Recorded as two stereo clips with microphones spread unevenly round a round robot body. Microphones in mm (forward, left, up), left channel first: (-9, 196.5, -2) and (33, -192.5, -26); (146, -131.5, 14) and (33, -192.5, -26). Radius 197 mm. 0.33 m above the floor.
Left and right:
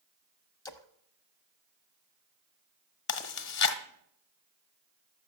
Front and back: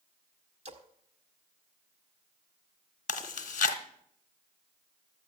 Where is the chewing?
50° left, 1.4 m.